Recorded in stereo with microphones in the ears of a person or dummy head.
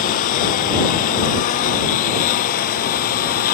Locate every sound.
0.0 s a lawn mower: 45° left (ahead or behind); by 3.5 s 50° left (ahead or behind)